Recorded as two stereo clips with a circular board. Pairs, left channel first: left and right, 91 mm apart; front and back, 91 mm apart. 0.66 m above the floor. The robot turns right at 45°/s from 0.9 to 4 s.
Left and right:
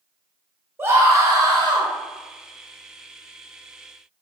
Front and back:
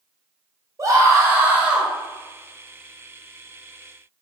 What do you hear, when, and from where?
0.8 s a scream: 145° right, 0.7 m; by 1.9 s 100° right, 0.7 m